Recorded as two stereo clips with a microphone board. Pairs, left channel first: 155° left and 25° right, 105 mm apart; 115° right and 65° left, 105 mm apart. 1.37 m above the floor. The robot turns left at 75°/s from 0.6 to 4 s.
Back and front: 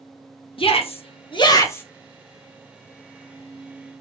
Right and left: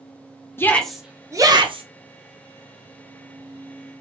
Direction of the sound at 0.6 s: Straight behind.